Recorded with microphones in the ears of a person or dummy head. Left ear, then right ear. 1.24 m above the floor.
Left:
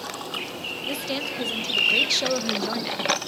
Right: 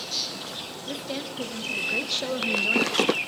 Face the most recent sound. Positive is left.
turn(degrees=0)  # may be behind; listen again after turning